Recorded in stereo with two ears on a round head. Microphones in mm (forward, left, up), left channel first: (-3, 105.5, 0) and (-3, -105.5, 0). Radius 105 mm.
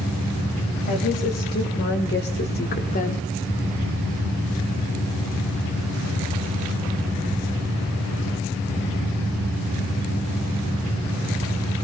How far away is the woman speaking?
About 3 m.